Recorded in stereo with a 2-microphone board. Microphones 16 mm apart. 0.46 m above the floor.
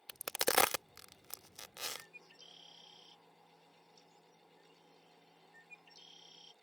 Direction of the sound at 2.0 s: 65° right (ahead or behind).